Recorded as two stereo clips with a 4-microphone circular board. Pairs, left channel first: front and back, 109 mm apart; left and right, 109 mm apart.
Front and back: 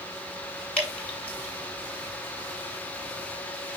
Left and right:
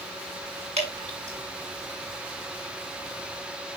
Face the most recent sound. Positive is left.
turn(degrees=-80)